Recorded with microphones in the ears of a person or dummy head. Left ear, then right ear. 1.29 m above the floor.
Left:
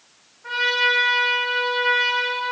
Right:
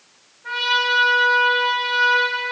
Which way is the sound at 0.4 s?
50° left (ahead or behind).